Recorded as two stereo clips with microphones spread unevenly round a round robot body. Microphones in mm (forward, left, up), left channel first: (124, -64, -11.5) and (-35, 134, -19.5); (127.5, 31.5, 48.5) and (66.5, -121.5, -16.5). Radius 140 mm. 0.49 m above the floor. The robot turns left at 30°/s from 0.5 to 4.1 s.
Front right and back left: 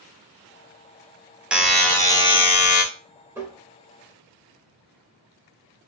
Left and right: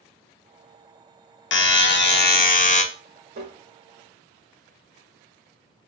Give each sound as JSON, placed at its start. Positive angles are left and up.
{"t": 1.5, "sound": "a buzzer", "azimuth_deg": 45, "distance_m": 0.5}
{"t": 3.4, "sound": "tapping", "azimuth_deg": -150, "distance_m": 0.5}